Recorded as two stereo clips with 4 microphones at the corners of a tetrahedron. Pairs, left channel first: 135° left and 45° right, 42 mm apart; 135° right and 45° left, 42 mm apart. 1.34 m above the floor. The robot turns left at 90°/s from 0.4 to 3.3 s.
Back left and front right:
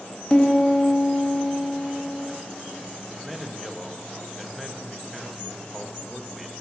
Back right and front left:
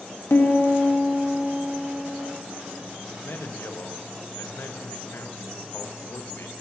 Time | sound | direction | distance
0.3 | a piano | 155° right | 1.6 m
3.1 | a man speaking | 115° right | 1.3 m